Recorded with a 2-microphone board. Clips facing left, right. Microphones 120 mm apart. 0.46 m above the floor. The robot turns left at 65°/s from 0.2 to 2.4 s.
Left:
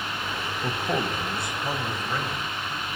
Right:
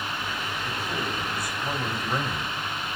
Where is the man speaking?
80° left, 2.5 m; by 2.5 s 35° right, 2.5 m.